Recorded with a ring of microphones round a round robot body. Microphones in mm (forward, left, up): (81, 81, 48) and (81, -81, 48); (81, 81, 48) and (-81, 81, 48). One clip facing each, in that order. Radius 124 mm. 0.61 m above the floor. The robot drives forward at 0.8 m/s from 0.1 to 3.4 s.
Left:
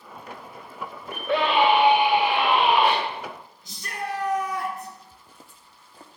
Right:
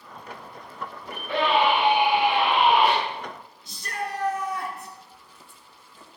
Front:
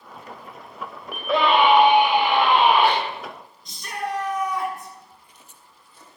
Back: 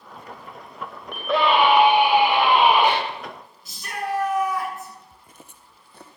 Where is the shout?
95° left, 9 m.